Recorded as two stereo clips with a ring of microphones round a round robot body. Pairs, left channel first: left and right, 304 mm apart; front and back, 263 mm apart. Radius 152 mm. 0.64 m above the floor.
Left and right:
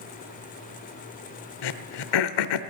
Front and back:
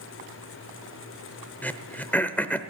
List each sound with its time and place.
1.6 s throat clearing: 85° left, 0.8 m